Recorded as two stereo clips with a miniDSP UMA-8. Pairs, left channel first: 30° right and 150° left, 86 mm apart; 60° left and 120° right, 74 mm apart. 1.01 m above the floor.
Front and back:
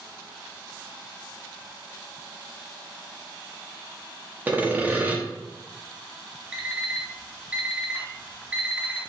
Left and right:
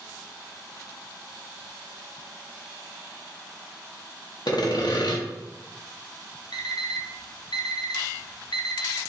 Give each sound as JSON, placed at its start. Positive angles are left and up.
{"t": 4.5, "sound": "sawing", "azimuth_deg": 80, "distance_m": 0.9}
{"t": 6.5, "sound": "an alarm clock", "azimuth_deg": 75, "distance_m": 0.7}